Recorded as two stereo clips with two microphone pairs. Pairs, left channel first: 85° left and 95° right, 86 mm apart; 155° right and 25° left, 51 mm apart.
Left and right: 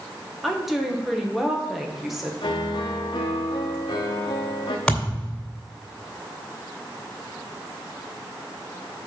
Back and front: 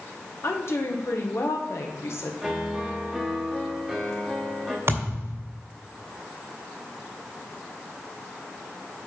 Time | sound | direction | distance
0.4 | a woman speaking | straight behind | 1.2 m
2.4 | a piano | 115° left | 1.2 m
4.9 | a thud | 10° left | 2 m